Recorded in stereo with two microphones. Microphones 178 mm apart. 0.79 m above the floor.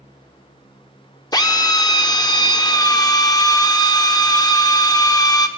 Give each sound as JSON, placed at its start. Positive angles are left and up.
{"t": 1.3, "sound": "a drill", "side_deg": 20, "distance_m": 0.5}